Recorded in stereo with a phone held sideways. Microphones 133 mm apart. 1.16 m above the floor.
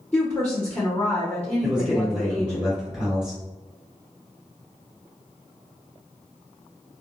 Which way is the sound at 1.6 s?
5° right (ahead or behind).